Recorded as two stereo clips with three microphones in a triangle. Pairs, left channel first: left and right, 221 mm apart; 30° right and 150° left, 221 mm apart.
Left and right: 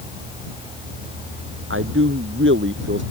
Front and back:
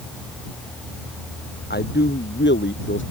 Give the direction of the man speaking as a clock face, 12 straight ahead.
2 o'clock.